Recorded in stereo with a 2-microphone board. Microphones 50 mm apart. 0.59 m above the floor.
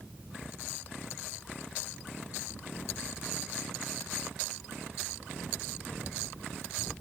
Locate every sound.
Only background noise.